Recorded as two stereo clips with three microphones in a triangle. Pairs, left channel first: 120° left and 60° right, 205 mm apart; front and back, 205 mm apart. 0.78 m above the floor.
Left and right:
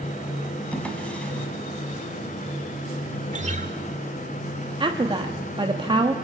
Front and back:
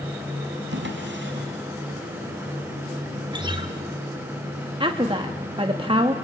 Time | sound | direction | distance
0.7 | a drawer | 155° right | 3 m
3.3 | a guitar | 110° right | 1.5 m
4.8 | a woman speaking | 120° right | 1.2 m